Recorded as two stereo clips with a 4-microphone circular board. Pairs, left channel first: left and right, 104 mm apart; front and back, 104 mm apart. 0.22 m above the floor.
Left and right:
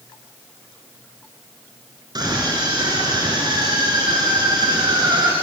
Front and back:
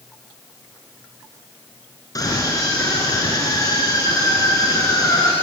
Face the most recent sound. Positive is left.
turn(degrees=-50)